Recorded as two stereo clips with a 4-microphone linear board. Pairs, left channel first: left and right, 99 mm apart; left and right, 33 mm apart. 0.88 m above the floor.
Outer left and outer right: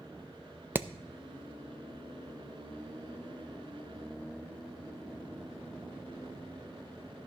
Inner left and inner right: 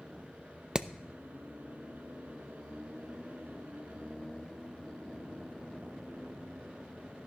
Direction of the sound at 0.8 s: 20° right (ahead or behind).